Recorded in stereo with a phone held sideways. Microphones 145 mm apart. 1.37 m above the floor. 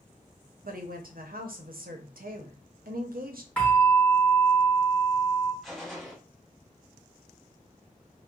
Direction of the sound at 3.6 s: 15° left (ahead or behind).